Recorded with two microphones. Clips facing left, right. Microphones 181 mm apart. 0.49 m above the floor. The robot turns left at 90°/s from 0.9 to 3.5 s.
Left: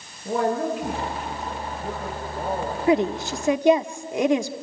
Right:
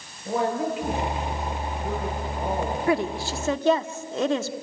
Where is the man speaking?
140° left, 8.5 m; by 2.8 s 30° right, 8.5 m.